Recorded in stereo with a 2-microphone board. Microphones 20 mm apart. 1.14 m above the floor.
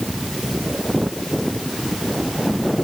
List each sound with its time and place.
Only background noise.